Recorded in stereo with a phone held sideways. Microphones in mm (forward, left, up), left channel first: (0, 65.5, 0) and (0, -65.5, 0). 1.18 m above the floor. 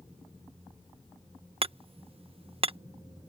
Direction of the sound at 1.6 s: 45° right (ahead or behind).